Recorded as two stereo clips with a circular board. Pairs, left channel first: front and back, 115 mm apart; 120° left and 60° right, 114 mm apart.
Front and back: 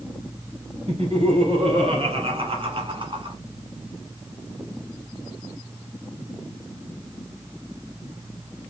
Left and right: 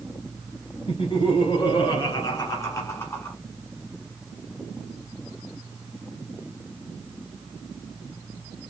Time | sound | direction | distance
0.9 | laughter | 155° left | 3 m